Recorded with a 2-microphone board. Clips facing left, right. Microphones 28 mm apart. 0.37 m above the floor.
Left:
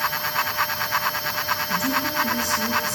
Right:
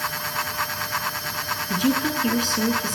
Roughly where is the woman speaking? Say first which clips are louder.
Right 4 dB; right.